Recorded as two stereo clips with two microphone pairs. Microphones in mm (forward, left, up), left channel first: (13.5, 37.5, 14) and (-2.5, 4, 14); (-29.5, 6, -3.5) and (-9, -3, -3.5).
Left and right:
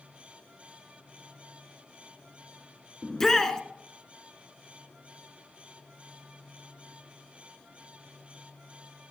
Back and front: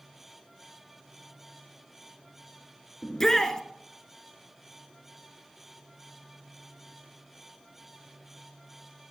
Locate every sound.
3.0 s a shout: 120° left, 1.1 m